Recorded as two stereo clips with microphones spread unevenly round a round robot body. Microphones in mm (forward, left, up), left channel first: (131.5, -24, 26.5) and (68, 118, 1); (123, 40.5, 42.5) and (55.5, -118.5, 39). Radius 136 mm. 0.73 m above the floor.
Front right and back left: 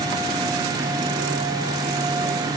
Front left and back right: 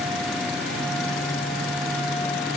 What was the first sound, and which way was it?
Only background noise.